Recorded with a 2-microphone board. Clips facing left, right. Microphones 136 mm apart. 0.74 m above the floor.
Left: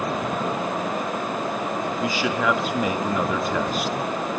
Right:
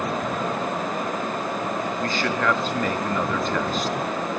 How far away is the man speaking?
About 1.2 m.